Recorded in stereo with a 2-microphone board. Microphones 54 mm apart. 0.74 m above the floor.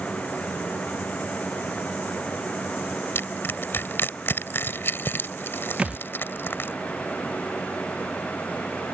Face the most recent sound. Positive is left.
turn(degrees=-20)  # may be behind; listen again after turning